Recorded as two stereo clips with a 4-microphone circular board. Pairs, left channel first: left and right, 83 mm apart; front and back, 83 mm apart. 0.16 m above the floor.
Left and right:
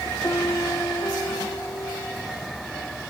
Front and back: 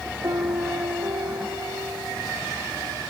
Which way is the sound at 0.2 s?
140° left.